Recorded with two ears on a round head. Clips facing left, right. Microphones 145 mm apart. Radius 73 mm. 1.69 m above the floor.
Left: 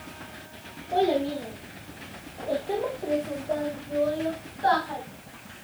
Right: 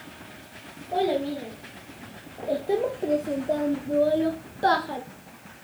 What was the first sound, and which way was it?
A child speaking, 5° right (ahead or behind).